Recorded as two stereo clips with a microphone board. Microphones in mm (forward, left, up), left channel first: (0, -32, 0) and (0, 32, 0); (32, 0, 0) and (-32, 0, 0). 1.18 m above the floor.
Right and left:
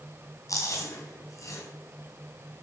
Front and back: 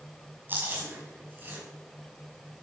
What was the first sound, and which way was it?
Chewing, 120° right.